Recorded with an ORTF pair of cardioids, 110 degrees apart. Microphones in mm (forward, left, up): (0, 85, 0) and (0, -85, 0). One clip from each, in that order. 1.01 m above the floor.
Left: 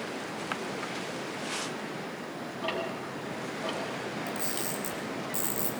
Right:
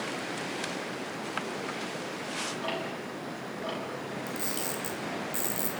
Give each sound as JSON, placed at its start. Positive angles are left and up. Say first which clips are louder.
{"t": 2.6, "sound": "ticking", "louder": "left 1 dB", "azimuth_deg": 15, "distance_m": 7.5}
{"t": 4.3, "sound": "a camera shutter", "louder": "even", "azimuth_deg": 0, "distance_m": 5.0}